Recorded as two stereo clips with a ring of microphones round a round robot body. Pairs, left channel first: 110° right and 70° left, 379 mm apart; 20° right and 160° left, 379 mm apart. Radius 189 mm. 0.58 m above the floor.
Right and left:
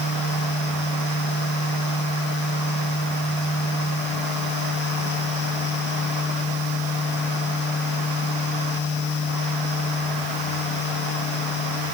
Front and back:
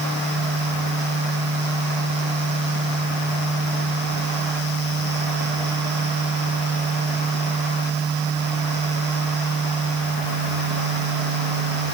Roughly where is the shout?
No shout in this recording.